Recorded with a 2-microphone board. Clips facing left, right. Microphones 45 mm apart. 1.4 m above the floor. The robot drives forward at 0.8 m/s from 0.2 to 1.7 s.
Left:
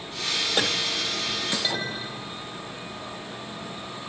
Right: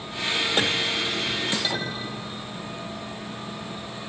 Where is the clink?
10° left (ahead or behind), 3.5 m.